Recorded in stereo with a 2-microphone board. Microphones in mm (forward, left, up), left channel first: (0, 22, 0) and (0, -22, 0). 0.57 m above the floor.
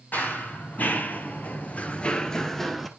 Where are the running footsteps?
40° left (ahead or behind), 1.1 m; by 2.9 s 5° left (ahead or behind), 0.7 m.